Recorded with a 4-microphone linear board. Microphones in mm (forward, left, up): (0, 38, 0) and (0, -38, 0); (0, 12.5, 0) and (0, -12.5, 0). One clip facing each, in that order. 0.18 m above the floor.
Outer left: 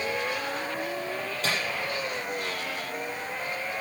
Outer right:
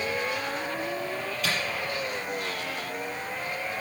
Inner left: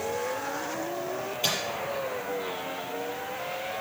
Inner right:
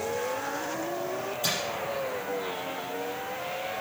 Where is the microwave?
30° left (ahead or behind), 4.5 m.